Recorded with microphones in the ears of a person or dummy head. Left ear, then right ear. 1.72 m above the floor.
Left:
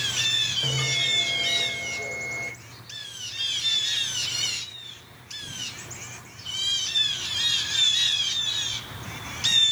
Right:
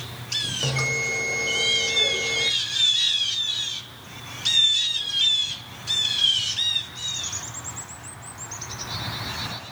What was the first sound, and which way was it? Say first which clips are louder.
A bell: even; 85° right.